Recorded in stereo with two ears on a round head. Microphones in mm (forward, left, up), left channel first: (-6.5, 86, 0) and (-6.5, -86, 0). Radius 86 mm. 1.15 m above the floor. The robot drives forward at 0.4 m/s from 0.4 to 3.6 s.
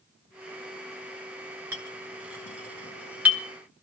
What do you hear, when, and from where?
1.7 s a clink: 15° right (ahead or behind), 3 m; by 3.4 s 10° right (ahead or behind), 3.5 m